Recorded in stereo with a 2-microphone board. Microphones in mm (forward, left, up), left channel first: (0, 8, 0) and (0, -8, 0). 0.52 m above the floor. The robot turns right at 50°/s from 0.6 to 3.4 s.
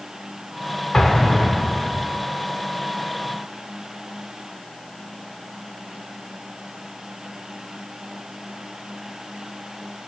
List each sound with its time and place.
0.9 s an explosion: 90° left, 1.3 m; by 2.1 s 145° left, 1.3 m